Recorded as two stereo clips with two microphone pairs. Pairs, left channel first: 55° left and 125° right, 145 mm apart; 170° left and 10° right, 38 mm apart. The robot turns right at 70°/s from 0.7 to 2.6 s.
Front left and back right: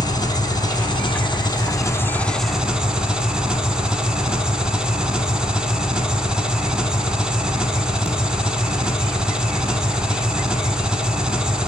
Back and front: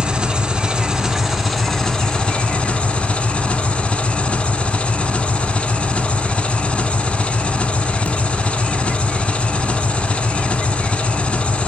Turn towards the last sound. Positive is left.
turn(degrees=155)